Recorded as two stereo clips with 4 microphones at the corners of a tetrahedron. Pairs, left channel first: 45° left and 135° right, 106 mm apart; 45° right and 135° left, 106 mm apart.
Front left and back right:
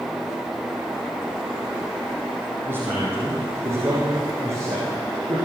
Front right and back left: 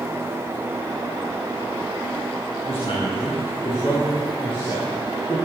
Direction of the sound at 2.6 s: 70° right.